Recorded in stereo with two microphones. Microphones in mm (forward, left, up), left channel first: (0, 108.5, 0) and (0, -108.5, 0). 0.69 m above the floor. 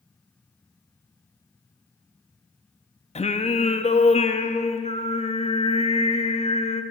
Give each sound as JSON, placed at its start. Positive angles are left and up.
{"t": 3.1, "sound": "singing", "side_deg": 30, "distance_m": 0.7}